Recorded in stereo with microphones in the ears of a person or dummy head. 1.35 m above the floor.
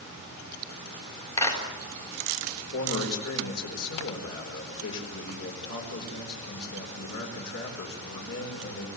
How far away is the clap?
About 4 m.